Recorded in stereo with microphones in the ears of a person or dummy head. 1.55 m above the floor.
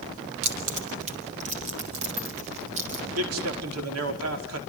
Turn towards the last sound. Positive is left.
turn(degrees=-90)